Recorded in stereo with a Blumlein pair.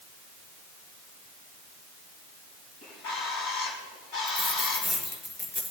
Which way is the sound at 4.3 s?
25° left.